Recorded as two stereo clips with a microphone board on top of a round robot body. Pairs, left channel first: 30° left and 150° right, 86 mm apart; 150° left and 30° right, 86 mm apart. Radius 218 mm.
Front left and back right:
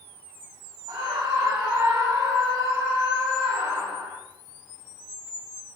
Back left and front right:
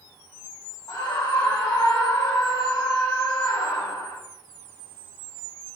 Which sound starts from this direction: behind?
A scream, at 0.9 s.